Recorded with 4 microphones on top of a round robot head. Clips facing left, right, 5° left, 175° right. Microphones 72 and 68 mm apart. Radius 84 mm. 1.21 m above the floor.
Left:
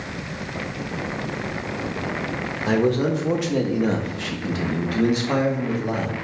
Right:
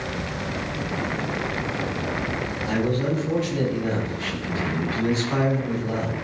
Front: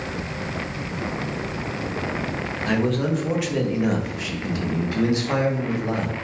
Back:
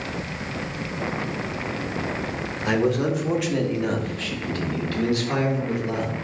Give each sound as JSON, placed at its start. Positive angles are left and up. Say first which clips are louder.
{"t": 2.6, "sound": "a man speaking", "louder": "left 5 dB, back 1 dB", "azimuth_deg": 110, "distance_m": 1.8}